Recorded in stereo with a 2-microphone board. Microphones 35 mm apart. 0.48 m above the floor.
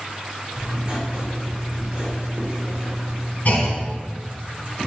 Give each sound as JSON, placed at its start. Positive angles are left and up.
{"t": 0.6, "sound": "writing", "side_deg": -15, "distance_m": 2.5}
{"t": 3.5, "sound": "a clunk", "side_deg": 55, "distance_m": 1.4}